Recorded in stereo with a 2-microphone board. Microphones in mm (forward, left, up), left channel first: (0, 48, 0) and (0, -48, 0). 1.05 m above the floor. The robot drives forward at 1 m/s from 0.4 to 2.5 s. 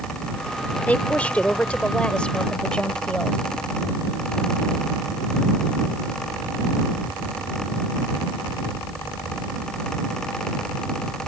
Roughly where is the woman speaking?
Centre.